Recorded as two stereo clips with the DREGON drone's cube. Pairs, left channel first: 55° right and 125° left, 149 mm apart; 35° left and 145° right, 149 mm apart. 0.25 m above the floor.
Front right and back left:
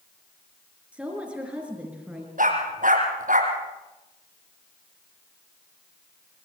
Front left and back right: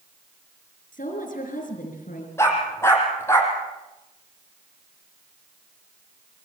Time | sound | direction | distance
0.9 | a woman speaking | 45° left | 5 m
2.4 | a dog barking | 105° left | 5 m